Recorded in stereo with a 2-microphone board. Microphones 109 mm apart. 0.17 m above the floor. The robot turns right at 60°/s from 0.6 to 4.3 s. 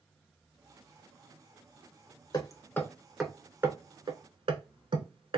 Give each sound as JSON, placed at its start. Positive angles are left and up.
{"t": 2.3, "sound": "hammering", "side_deg": 40, "distance_m": 0.6}